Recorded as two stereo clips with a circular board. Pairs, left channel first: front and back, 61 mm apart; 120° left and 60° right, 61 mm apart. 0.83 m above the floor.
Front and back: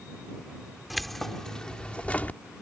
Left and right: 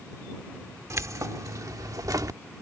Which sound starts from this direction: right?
Keys jangling, at 0.9 s.